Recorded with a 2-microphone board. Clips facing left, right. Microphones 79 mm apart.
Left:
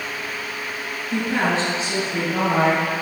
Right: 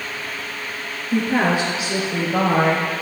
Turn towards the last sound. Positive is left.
turn(degrees=-15)  # may be behind; listen again after turning